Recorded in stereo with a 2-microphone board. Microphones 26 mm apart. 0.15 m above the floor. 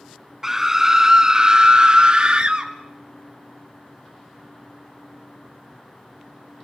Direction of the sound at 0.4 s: 15° right (ahead or behind).